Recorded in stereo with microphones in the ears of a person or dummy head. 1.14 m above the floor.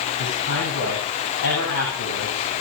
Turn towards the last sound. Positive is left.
turn(degrees=75)  # may be behind; listen again after turning